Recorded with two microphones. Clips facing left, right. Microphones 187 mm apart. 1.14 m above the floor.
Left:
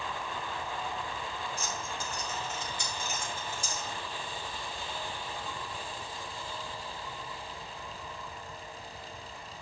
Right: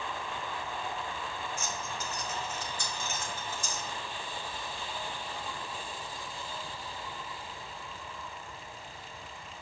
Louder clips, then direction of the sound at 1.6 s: Even; 35° left (ahead or behind).